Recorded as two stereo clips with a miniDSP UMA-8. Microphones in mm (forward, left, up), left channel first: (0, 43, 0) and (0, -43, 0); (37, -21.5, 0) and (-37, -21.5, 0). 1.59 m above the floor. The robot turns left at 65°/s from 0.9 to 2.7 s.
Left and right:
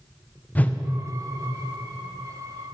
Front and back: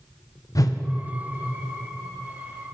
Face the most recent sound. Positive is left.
turn(degrees=-95)